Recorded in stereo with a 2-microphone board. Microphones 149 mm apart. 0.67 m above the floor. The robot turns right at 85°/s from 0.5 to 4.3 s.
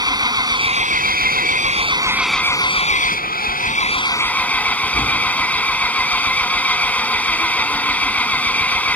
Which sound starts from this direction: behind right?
An engine running, at 0.0 s.